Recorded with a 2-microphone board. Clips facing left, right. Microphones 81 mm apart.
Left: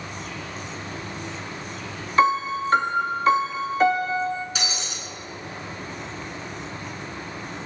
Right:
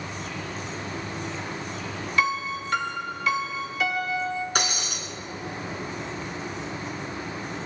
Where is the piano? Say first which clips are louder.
Left 7 dB; 35° left (ahead or behind), 0.6 m.